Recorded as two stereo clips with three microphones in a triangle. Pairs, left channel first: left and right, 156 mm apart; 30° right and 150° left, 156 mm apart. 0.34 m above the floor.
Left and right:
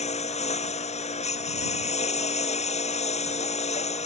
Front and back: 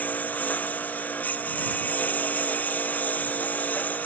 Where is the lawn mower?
50° left.